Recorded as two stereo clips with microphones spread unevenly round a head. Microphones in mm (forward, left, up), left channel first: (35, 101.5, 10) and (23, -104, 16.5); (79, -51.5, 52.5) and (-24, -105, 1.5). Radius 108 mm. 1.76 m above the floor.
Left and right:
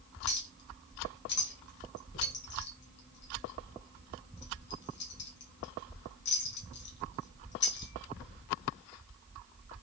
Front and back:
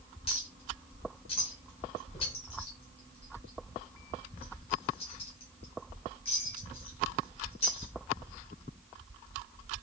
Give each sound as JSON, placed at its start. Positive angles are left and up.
{"t": 0.3, "sound": "a clink", "azimuth_deg": 55, "distance_m": 1.4}